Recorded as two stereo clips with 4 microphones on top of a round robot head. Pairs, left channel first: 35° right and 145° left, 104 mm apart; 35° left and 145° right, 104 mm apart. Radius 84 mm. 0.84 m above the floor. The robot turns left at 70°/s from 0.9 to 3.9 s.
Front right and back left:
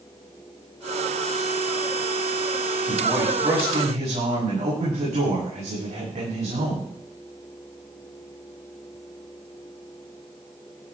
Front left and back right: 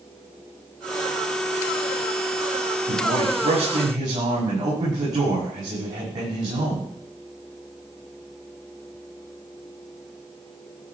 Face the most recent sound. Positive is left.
turn(degrees=160)